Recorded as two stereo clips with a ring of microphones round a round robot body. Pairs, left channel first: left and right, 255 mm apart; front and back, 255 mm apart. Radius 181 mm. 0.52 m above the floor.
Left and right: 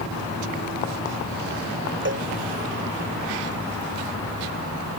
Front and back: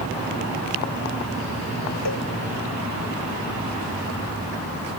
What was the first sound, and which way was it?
A cowbell, 50° right.